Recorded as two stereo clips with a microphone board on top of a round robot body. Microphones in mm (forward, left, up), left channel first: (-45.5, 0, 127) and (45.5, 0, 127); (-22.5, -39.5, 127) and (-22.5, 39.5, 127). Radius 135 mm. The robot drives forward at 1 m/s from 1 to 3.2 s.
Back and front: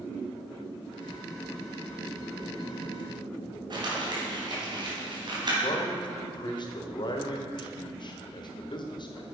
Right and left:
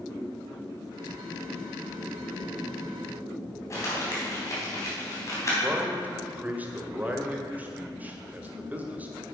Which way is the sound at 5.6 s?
155° left.